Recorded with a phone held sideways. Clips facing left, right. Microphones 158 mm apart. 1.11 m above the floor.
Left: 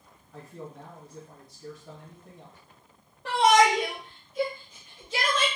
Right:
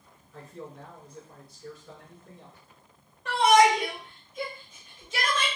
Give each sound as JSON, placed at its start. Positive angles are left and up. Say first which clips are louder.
{"t": 0.3, "sound": "a man speaking", "louder": "even", "side_deg": 65, "distance_m": 2.5}
{"t": 3.2, "sound": "a shout", "louder": "right 1 dB", "side_deg": 85, "distance_m": 1.6}